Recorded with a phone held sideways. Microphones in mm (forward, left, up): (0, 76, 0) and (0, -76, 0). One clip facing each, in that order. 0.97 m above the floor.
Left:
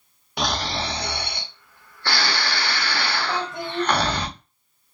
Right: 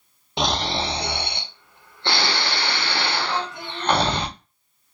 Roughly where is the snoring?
Right.